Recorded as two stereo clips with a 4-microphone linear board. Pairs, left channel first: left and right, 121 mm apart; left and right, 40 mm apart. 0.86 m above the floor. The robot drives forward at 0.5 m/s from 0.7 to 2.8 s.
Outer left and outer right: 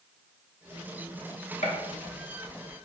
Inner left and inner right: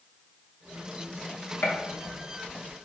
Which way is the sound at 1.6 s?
80° left.